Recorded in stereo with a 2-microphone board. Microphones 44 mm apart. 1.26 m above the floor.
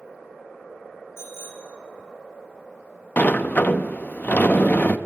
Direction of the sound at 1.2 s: 65° left (ahead or behind).